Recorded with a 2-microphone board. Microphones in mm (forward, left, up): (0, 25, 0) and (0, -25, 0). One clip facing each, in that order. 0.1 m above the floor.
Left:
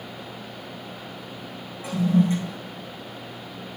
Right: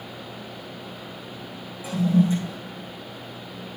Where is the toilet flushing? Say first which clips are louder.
Even; 50° left (ahead or behind), 7.5 m.